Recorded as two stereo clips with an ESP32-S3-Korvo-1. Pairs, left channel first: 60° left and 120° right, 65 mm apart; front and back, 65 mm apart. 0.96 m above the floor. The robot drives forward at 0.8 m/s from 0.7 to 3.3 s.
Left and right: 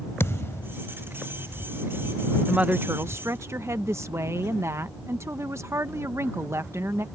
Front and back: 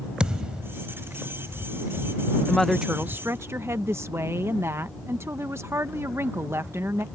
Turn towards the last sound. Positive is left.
turn(degrees=-145)